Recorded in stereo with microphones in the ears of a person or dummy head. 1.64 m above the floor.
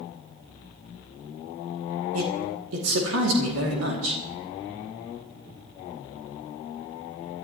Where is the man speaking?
75° right (ahead or behind), 2.5 m.